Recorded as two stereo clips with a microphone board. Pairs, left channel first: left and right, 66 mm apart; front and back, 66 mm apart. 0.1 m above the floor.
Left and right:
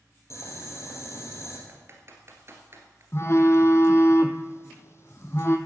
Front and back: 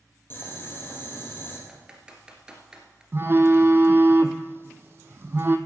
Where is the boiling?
55° left, 3 m.